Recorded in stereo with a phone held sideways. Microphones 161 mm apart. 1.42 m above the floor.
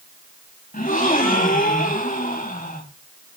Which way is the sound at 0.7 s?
60° left (ahead or behind).